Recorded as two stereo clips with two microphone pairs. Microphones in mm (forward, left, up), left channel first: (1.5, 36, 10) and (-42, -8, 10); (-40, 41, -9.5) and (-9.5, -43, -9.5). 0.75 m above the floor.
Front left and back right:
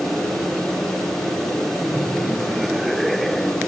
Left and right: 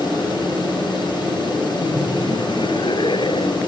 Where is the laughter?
130° left; by 3.6 s 135° left.